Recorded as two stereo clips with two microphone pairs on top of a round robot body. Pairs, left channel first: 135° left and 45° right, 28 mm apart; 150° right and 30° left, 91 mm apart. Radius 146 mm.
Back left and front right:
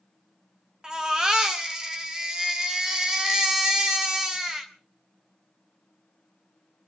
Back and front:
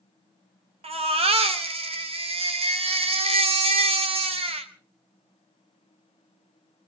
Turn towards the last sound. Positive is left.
turn(degrees=30)